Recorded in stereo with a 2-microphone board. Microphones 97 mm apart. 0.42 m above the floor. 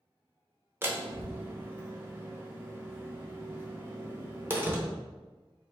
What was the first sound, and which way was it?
A door slam, 20° right (ahead or behind).